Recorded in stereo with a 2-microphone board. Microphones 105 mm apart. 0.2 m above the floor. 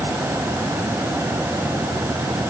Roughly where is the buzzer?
I don't hear a buzzer.